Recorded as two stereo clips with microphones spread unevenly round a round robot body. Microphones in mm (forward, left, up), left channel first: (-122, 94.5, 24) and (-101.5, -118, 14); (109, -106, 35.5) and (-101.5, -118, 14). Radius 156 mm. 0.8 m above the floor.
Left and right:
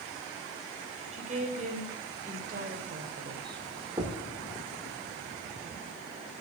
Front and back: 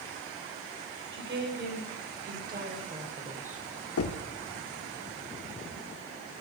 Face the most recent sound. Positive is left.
turn(degrees=-10)